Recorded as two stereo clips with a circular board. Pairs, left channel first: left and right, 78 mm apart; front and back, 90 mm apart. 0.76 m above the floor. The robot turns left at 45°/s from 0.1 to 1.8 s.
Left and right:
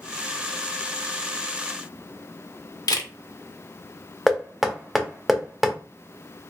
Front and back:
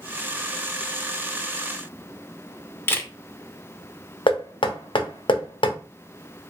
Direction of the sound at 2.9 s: 60° left.